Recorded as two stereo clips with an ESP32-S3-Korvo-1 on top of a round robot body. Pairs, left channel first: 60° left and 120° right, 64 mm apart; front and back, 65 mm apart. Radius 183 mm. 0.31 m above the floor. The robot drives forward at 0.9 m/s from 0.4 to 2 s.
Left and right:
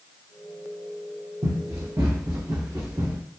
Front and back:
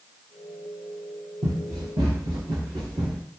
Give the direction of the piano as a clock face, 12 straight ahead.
No piano in this recording.